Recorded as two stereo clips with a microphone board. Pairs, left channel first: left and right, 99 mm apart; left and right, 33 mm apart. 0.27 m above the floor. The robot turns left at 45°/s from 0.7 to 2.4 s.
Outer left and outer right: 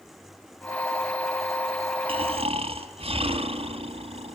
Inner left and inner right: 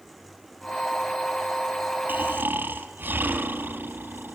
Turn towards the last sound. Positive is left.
turn(degrees=-75)  # may be behind; listen again after turning